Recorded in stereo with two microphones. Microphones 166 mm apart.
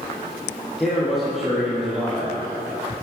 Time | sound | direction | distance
0.8 | a man speaking | centre (ahead or behind) | 6 m